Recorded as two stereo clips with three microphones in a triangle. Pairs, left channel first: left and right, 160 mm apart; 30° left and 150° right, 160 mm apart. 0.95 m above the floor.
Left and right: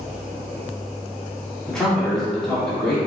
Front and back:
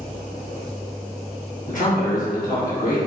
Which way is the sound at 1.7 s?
5° left.